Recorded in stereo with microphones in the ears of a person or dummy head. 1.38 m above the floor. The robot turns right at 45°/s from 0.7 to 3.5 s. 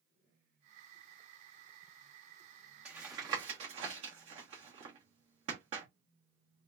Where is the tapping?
10° right (ahead or behind), 1.1 m; by 5.9 s 35° right (ahead or behind), 1.1 m.